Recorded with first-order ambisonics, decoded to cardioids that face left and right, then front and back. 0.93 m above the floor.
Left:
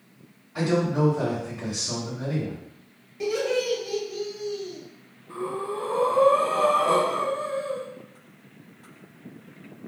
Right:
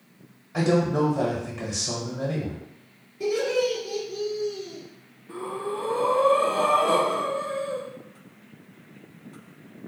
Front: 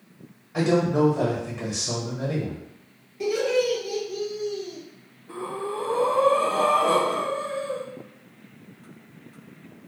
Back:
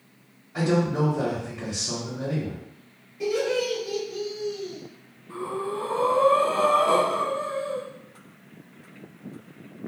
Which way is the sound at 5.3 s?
15° right.